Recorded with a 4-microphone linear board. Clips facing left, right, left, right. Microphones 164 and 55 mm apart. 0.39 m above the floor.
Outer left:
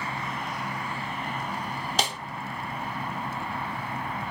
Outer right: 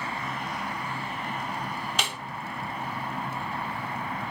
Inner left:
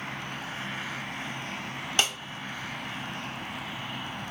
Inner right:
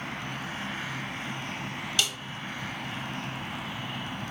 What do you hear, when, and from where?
2.0 s a snare drum: 40° left (ahead or behind), 0.6 m